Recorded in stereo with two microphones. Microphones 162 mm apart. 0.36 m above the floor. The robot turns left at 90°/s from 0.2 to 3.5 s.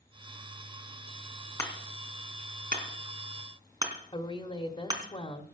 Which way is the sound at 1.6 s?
20° left (ahead or behind).